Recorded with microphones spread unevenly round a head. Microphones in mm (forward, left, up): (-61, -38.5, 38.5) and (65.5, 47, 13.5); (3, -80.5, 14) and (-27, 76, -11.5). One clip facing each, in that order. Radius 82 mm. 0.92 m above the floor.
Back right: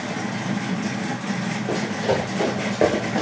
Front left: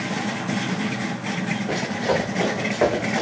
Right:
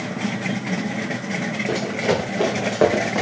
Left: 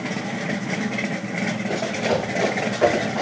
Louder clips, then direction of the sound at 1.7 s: Back right 1 dB, right 2 dB; 85° right.